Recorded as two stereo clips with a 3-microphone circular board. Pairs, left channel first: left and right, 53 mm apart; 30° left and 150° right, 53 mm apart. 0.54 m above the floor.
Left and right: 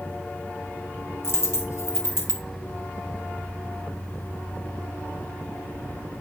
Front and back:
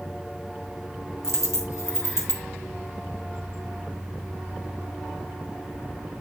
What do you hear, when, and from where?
1.2 s a dropped coin: 55° left, 2 m